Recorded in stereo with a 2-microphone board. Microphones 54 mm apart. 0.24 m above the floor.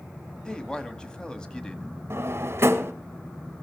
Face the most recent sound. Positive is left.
turn(degrees=-50)  # may be behind; listen again after turning